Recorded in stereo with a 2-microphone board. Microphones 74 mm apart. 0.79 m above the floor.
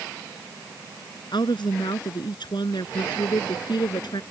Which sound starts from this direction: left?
A woman speaking, at 1.3 s.